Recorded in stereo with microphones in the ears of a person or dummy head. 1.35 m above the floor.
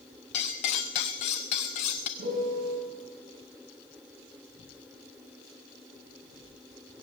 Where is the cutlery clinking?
30° left (ahead or behind), 0.6 m.